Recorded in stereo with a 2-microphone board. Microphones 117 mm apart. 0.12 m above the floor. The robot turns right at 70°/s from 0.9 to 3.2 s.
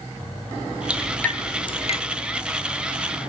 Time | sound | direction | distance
0.9 | dripping | 10° right (ahead or behind) | 1.0 m